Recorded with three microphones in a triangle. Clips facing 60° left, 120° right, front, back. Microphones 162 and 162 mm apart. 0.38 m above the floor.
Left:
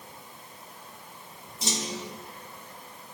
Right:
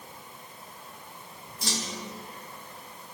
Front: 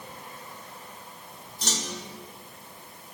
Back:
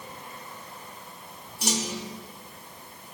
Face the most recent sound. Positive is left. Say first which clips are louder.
# left 2 dB, back 5 dB
turn(degrees=110)